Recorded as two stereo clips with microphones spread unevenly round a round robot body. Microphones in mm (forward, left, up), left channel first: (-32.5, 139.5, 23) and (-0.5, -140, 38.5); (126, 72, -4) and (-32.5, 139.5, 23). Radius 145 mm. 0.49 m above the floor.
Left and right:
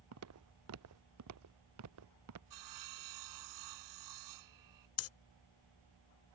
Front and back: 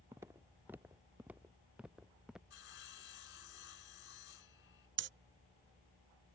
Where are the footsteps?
120° right; by 2.4 s 115° right.